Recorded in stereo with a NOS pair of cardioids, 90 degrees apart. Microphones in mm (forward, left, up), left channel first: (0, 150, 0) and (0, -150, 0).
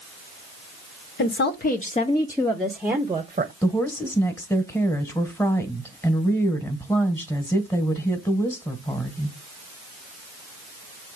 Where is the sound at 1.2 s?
40° left, 1.4 m; by 3.5 s 20° right, 1.2 m.